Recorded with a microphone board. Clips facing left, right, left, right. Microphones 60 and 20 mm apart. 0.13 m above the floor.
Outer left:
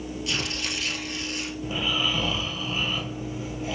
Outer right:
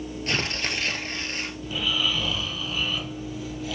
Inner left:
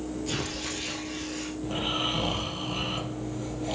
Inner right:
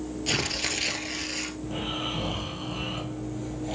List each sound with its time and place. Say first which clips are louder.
0.3 s tearing paper: outer right 4 dB, inner right 8 dB; 45° right (ahead or behind), 1.1 m
1.6 s snoring: even, inner left 6 dB; 25° left (ahead or behind), 1.9 m